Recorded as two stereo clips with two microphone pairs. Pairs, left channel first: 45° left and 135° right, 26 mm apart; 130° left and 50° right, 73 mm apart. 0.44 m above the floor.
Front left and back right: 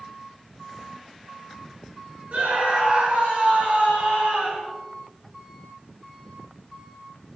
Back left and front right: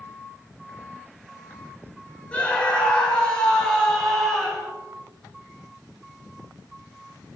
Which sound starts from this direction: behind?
A scream, at 2.3 s.